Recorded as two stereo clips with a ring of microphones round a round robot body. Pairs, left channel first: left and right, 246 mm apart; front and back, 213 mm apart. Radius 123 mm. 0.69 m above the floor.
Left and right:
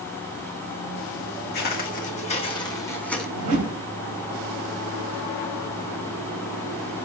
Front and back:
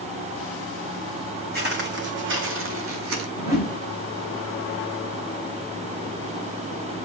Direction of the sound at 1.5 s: 140° left.